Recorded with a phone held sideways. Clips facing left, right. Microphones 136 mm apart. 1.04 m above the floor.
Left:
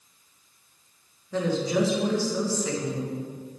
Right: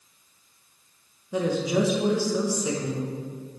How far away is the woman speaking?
About 1.0 m.